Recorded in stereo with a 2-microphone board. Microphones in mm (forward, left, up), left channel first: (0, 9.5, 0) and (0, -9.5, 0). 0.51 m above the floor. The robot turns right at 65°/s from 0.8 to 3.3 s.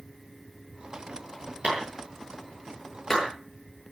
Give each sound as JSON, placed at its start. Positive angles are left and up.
{"t": 1.6, "sound": "a clap", "side_deg": -70, "distance_m": 10.0}